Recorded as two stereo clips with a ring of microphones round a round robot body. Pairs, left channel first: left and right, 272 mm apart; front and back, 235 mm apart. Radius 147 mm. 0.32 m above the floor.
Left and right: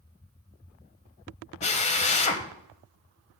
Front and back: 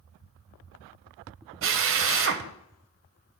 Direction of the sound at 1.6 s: 155° left.